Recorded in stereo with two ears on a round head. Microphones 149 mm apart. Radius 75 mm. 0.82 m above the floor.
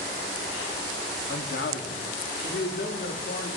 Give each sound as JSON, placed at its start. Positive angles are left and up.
{"t": 1.3, "sound": "a man speaking", "side_deg": 65, "distance_m": 1.3}